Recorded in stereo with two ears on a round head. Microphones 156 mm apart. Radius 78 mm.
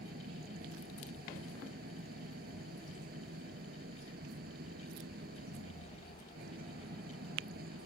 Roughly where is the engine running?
Right.